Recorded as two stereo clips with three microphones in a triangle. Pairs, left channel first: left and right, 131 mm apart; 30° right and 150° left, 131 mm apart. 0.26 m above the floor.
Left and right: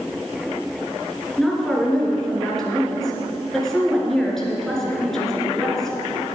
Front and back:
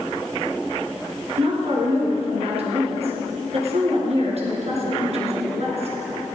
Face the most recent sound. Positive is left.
turn(degrees=175)